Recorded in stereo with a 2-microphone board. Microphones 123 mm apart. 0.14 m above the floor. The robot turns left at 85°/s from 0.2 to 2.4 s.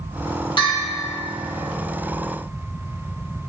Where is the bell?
40° left, 5 m; by 1.0 s 5° left, 5 m.